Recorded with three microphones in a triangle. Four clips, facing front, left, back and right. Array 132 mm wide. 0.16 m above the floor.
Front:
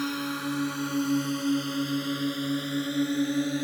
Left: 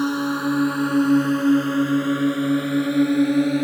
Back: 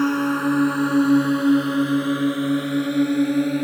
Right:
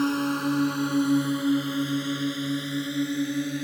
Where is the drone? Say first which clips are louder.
Left 3 dB, back 11 dB; 165° left; by 3.6 s 115° left.